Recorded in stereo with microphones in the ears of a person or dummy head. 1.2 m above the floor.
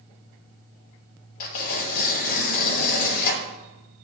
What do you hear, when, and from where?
1.4 s tearing paper: 45° left (ahead or behind), 0.7 m